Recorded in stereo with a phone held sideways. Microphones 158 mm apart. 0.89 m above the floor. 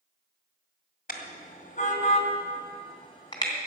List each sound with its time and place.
1.1 s a car horn: 70° left (ahead or behind), 2 m; by 3.5 s 25° left (ahead or behind), 3 m